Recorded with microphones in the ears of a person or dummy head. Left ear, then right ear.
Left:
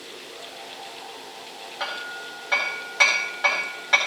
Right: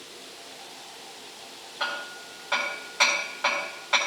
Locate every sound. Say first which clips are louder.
1.8 s hammering: even; 20° left (ahead or behind), 4.5 m